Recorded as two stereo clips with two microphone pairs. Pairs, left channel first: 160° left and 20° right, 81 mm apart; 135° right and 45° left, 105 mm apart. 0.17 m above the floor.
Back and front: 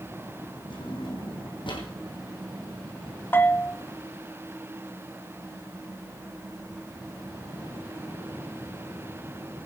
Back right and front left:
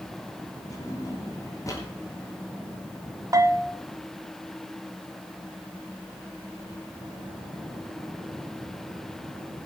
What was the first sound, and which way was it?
A drawer, 165° left.